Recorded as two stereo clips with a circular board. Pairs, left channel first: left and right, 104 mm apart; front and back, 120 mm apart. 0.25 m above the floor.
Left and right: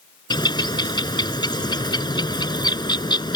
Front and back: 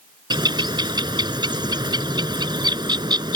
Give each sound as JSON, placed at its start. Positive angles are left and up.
{"t": 0.3, "sound": "a bird", "azimuth_deg": 130}